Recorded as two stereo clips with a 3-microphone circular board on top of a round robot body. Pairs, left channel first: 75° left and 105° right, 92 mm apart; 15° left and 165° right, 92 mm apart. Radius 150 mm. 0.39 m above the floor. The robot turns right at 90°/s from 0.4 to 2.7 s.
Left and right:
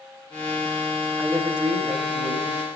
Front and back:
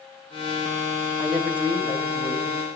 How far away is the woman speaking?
About 4 m.